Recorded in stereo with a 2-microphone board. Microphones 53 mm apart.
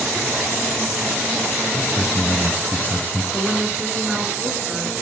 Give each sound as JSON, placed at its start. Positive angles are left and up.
{"t": 1.7, "sound": "a man speaking", "side_deg": 40, "distance_m": 1.5}
{"t": 3.3, "sound": "a woman speaking", "side_deg": -15, "distance_m": 3.5}